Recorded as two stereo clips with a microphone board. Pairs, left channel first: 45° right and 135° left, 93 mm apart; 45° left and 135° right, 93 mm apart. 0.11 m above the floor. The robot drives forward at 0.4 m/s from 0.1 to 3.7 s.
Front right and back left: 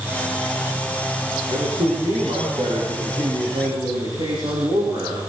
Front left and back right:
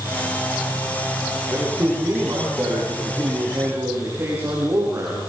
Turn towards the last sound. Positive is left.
turn(degrees=165)